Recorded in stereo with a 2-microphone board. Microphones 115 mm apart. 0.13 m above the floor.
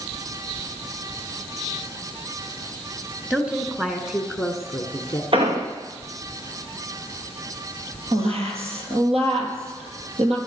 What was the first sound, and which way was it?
A woman speaking, 10° right (ahead or behind).